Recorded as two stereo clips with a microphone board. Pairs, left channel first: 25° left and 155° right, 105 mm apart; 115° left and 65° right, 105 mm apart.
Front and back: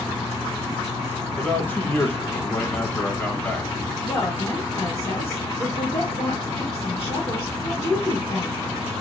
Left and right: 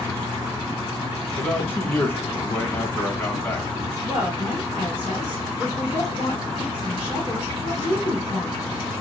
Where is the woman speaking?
10° right, 1.6 m.